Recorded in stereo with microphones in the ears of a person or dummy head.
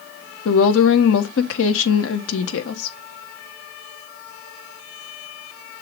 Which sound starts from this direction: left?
A woman speaking, at 0.5 s.